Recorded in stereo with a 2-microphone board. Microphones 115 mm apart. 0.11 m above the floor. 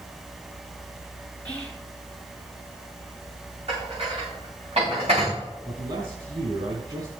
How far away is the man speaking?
About 3.5 m.